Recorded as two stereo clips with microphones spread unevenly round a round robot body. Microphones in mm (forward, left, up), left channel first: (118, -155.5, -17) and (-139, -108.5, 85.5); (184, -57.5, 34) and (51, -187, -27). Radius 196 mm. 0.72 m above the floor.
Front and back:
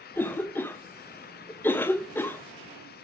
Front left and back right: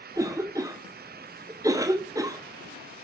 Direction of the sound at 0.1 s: 75° right.